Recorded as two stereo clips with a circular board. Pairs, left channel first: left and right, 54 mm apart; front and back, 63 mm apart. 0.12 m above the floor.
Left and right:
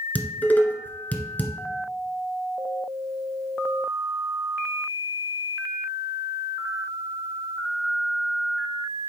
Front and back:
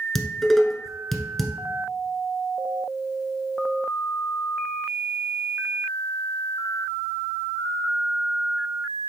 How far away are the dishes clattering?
About 1.1 m.